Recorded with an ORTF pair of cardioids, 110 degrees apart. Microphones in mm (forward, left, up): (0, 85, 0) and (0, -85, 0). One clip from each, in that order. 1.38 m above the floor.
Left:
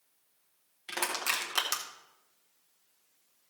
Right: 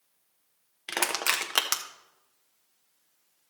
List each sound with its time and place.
0.9 s crushing: 45° right, 1.3 m